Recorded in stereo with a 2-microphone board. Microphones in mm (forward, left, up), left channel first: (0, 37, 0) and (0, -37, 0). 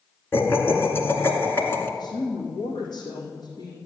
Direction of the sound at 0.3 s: 30° left (ahead or behind).